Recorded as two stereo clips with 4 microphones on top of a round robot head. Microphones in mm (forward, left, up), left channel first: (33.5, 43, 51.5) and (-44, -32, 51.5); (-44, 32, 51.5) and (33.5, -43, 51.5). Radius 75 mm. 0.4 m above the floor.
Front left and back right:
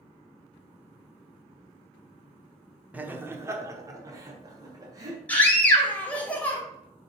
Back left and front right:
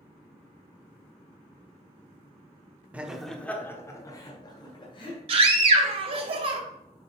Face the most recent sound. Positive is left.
turn(degrees=-30)